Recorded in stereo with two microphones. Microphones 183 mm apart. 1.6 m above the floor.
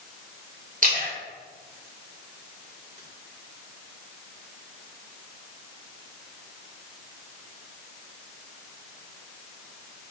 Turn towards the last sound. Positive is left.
turn(degrees=-50)  # may be behind; listen again after turning